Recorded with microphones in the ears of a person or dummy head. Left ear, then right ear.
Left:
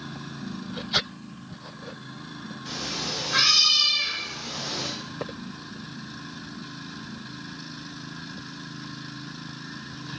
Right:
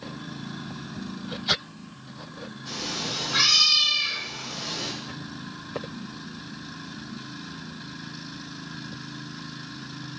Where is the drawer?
I don't hear a drawer.